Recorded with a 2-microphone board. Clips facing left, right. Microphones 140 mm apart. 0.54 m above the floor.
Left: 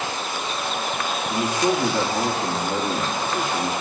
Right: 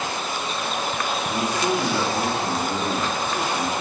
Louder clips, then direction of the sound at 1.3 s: Left 3 dB; 20° left (ahead or behind).